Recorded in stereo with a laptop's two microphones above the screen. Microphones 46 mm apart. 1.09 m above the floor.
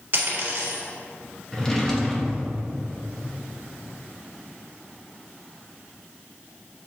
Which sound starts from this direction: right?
A dropped coin, at 0.1 s.